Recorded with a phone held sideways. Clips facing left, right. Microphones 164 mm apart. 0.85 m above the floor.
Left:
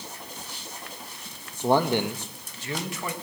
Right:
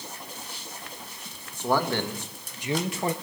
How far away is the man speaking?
About 1.2 m.